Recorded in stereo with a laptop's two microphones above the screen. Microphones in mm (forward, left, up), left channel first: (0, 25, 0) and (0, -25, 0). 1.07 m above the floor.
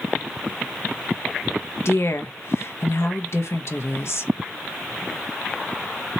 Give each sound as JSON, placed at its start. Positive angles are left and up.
{"t": 1.9, "sound": "a woman speaking", "side_deg": 60, "distance_m": 1.0}